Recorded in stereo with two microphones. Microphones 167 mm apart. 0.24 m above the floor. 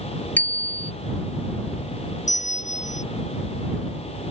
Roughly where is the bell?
Left.